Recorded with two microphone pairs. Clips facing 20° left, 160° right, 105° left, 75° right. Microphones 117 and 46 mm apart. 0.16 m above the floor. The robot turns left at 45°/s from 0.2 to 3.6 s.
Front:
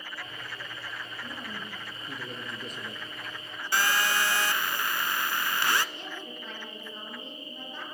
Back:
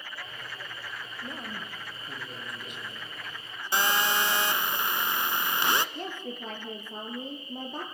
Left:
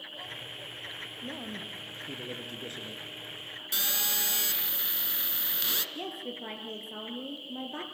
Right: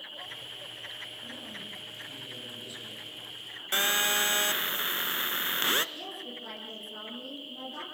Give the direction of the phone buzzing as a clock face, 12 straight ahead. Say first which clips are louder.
Back 1 dB, right 8 dB; 3 o'clock.